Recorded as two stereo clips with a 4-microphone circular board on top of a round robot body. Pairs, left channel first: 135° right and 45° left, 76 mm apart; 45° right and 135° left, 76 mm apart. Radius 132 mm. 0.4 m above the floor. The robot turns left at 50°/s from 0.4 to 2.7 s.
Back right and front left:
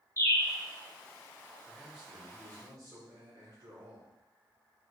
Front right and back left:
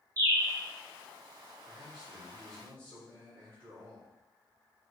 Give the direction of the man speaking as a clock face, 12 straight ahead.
8 o'clock.